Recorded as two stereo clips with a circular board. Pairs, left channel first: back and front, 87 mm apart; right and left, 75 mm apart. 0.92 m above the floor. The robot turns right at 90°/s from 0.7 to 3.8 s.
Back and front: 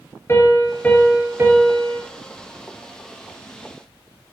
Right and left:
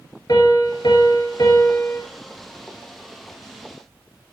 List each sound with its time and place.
0.3 s a piano: 125° right, 3 m; by 2.0 s 5° right, 3 m